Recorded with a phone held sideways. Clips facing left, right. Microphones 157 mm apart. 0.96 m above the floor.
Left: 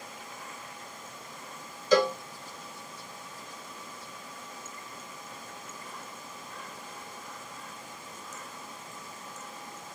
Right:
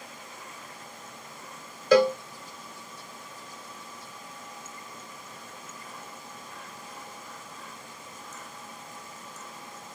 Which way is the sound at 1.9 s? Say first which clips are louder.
Right 4 dB; 60° right (ahead or behind).